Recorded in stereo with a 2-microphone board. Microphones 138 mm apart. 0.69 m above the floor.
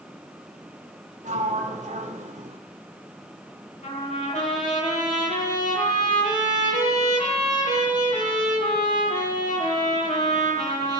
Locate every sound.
1.2 s a sliding door: 60° right (ahead or behind), 2.5 m
3.8 s a trumpet: 65° left (ahead or behind), 10 m